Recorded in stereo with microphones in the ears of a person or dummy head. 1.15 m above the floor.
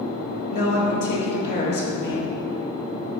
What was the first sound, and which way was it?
A woman speaking, 45° left (ahead or behind).